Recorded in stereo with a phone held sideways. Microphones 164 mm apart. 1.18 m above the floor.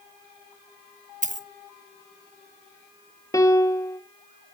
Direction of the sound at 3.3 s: 20° left (ahead or behind).